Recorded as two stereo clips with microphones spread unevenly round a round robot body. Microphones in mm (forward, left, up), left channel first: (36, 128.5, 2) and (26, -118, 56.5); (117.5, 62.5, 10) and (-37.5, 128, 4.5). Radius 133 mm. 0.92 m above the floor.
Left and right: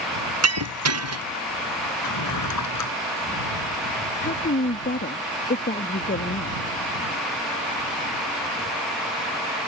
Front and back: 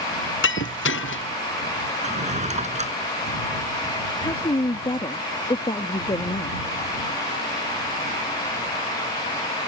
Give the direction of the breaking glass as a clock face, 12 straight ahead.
2 o'clock.